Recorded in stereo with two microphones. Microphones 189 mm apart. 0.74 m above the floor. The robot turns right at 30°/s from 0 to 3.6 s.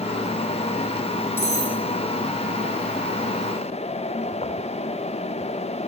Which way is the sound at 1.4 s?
10° left (ahead or behind).